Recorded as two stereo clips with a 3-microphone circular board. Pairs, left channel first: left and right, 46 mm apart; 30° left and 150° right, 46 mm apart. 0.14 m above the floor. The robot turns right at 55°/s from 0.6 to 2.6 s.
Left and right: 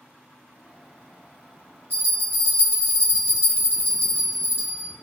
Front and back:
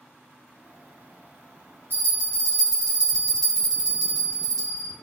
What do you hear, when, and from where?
1.9 s a bell: 115° right, 2 m; by 4.9 s 80° right, 2 m